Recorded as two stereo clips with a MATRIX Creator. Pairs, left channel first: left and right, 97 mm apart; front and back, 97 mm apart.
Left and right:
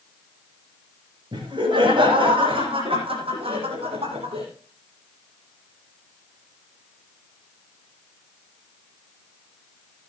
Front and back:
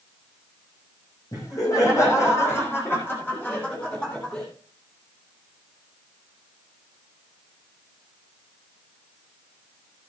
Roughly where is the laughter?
Ahead right.